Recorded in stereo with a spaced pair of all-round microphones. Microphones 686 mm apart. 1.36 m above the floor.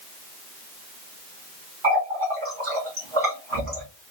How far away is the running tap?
About 1.9 m.